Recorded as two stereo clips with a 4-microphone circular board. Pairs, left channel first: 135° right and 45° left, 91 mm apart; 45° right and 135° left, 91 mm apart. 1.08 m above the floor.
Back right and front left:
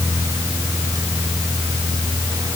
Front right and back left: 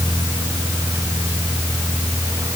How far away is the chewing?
No chewing in this recording.